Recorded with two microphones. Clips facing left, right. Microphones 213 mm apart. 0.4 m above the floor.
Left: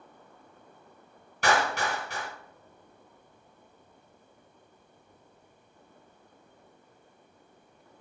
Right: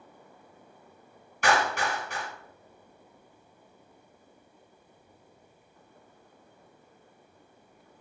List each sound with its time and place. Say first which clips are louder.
1.4 s a clap: even; 35° left (ahead or behind), 1.7 m